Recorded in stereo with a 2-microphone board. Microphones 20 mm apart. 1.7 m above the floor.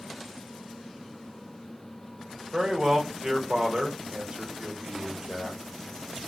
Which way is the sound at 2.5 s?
40° right (ahead or behind).